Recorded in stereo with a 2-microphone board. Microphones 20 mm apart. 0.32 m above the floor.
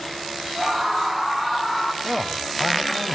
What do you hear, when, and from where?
0.6 s a scream: 25° right (ahead or behind), 3.5 m; by 1.9 s 5° right (ahead or behind), 3 m
2.0 s a man speaking: 30° right (ahead or behind), 1.6 m